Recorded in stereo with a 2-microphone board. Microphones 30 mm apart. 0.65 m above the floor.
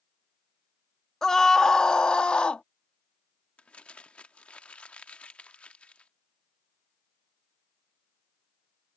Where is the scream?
20° left (ahead or behind); by 2.6 s 40° left (ahead or behind).